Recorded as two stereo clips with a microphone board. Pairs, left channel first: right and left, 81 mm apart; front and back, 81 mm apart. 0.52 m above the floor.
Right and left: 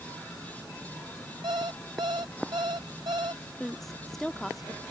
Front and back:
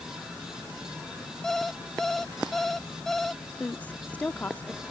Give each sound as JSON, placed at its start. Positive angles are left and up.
{"t": 1.4, "sound": "an alarm clock", "azimuth_deg": 85}
{"t": 3.6, "sound": "a woman speaking", "azimuth_deg": -10}